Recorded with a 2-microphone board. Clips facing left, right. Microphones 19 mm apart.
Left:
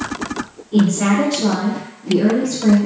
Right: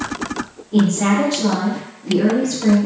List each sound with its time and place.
0.7 s a woman speaking: 20° left (ahead or behind), 1.4 m; by 2.8 s 30° right (ahead or behind), 1.5 m